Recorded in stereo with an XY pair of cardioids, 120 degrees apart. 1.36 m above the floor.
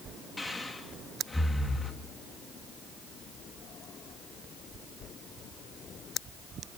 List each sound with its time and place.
0.4 s breathing: 10° left, 2.5 m